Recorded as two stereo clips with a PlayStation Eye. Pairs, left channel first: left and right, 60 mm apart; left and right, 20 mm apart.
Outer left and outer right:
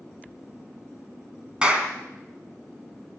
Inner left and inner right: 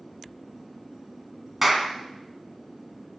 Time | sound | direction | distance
1.6 | a clap | 15° right (ahead or behind) | 2.5 m